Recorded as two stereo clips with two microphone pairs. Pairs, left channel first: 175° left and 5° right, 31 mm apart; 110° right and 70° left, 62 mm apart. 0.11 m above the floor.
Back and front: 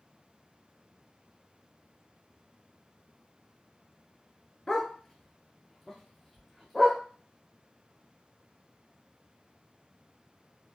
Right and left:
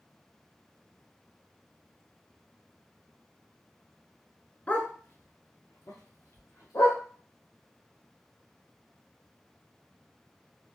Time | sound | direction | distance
4.7 | a dog barking | 135° right | 0.6 m